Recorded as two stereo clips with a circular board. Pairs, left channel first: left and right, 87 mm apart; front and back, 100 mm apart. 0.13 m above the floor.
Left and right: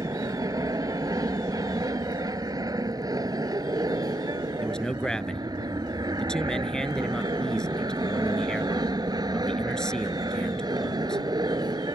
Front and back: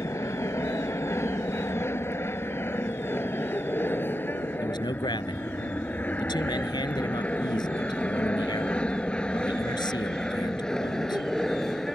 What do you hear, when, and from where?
0.0 s an aircraft: 55° right; by 12.0 s 85° right
4.6 s a man speaking: 10° left